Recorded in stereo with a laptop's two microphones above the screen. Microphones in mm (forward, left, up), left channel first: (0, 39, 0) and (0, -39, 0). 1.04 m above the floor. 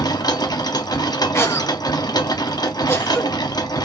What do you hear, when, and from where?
0.0 s a machine running: 55° left (ahead or behind), 0.7 m
1.3 s a cough: 30° left (ahead or behind), 0.8 m